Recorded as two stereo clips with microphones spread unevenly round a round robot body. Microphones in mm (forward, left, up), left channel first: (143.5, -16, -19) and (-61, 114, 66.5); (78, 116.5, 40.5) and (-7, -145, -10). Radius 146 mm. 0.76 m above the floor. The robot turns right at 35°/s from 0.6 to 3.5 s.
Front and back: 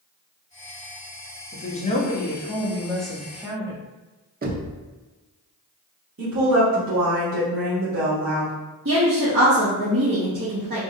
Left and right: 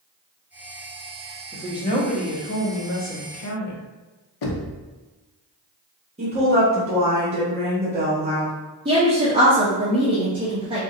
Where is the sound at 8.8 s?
165° right, 0.9 m.